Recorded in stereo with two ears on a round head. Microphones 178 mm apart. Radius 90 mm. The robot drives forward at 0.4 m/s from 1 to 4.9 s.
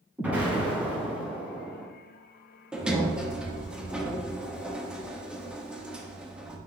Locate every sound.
0.2 s an explosion: 10° right (ahead or behind), 3 m
2.7 s a sliding door: 5° right (ahead or behind), 1.2 m